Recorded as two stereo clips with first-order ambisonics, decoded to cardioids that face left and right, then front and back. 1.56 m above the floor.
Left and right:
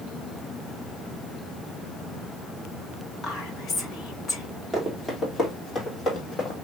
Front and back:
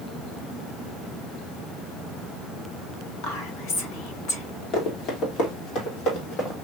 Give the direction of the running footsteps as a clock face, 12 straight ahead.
12 o'clock.